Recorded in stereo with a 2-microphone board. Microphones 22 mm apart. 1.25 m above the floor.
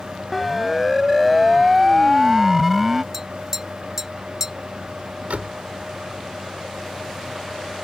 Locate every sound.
0.3 s a siren: centre (ahead or behind); by 3.0 s 5° right (ahead or behind)
3.1 s tapping: 15° right (ahead or behind)
5.3 s a door slam: 85° right